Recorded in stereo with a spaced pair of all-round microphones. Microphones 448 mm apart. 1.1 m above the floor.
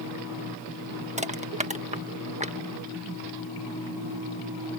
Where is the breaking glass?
I don't hear breaking glass.